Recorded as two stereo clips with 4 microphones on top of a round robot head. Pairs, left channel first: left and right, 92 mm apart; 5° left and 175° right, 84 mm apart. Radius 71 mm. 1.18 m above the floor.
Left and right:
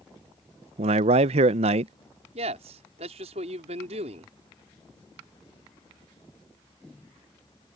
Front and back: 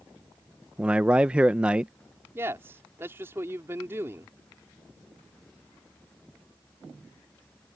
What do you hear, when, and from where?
0.8 s a man speaking: 95° right
2.4 s a man speaking: 105° right